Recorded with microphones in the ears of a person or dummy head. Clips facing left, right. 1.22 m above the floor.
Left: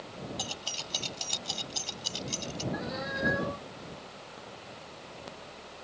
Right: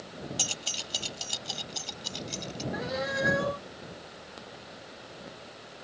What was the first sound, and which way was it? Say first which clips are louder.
Keys jangling: even; 35° right (ahead or behind).